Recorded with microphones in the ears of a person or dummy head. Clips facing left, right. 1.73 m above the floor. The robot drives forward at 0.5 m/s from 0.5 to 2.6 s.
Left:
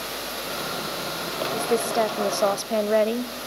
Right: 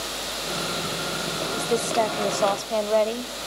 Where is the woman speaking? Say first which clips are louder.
Left 1 dB; 20° left (ahead or behind), 1.2 m; by 3.4 s 30° left (ahead or behind), 0.7 m.